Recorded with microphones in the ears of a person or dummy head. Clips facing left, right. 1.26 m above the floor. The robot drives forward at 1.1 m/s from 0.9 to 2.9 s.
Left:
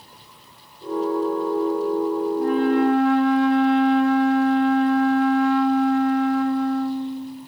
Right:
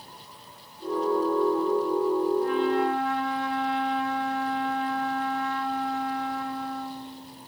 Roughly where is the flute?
Left.